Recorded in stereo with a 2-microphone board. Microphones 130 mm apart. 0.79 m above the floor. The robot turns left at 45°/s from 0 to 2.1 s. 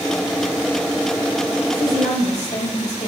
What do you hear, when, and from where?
1.7 s a woman speaking: 45° left (ahead or behind), 3.5 m; by 3.1 s 65° left (ahead or behind), 3.5 m